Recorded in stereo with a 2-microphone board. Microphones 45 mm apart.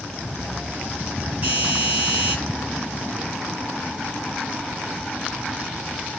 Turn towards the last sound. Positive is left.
turn(degrees=-35)  # may be behind; listen again after turning